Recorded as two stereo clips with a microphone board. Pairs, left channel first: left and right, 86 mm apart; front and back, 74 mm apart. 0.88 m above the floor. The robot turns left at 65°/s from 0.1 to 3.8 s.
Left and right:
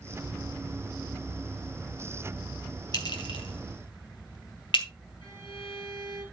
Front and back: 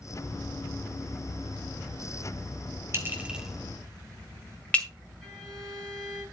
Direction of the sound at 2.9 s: 125° left.